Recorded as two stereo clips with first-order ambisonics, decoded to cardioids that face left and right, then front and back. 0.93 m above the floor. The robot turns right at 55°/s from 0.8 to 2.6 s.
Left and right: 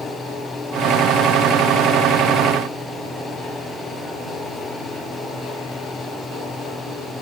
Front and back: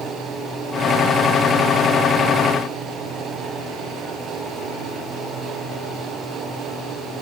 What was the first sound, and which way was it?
Only background noise.